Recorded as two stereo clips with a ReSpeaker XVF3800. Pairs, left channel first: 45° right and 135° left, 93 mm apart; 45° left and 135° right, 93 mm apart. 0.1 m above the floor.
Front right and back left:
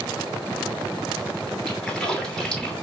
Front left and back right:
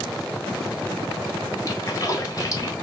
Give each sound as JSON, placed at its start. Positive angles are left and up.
{"t": 1.7, "sound": "a splash", "azimuth_deg": 35, "distance_m": 0.9}